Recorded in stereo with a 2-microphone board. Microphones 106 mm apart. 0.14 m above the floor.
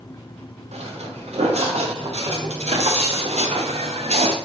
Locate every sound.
0.7 s footsteps: 90° right, 3.5 m; by 4.4 s 80° right, 1.6 m